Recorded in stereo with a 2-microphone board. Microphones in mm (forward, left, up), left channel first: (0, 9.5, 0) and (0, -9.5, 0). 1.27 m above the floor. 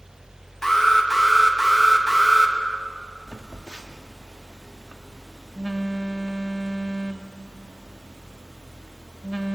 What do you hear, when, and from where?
0.6 s an alarm: 30° left (ahead or behind), 2 m
3.3 s a phone buzzing: 35° right (ahead or behind), 1.1 m